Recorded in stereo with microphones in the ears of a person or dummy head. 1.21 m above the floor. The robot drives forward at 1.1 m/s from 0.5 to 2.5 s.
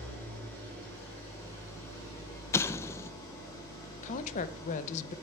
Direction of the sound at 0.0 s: 15° left (ahead or behind).